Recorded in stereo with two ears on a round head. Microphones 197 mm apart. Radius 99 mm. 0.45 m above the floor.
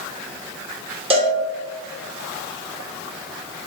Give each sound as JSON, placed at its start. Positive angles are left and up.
{"t": 1.1, "sound": "a cowbell", "side_deg": -25, "distance_m": 1.0}